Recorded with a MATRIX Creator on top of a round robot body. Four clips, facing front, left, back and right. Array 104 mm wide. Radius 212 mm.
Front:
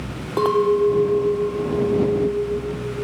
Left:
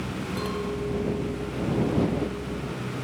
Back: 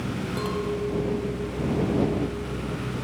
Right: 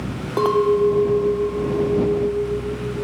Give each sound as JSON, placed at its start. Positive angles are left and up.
{"t": 0.4, "sound": "a clink", "azimuth_deg": -45}